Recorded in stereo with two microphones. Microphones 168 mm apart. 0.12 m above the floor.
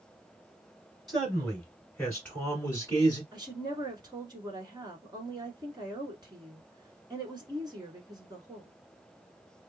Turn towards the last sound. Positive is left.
turn(degrees=-25)  # may be behind; listen again after turning